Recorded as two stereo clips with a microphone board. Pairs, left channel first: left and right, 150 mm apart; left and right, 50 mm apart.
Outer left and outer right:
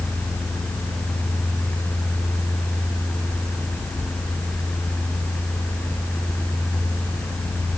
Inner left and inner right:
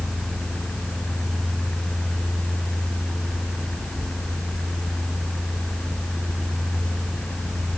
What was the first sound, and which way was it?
Only background noise.